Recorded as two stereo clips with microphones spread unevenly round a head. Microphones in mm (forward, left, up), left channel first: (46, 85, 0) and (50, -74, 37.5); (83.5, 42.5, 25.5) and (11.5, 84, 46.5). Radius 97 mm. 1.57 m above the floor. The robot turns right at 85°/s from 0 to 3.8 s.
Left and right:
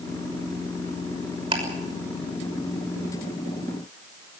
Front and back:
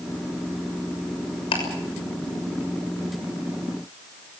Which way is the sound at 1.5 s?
35° right.